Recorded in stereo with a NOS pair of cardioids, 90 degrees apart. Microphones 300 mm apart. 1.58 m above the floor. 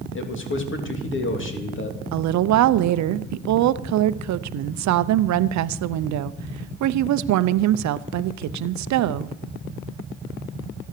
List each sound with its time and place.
0.1 s a man speaking: 40° left, 3 m
2.1 s a woman speaking: 65° right, 0.6 m